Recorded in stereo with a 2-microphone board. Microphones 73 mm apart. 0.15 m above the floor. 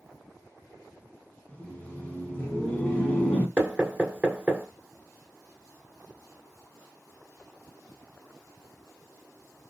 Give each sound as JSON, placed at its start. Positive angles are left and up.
{"t": 1.5, "sound": "laughter", "side_deg": 20, "distance_m": 1.4}
{"t": 3.6, "sound": "knocking", "side_deg": -15, "distance_m": 1.3}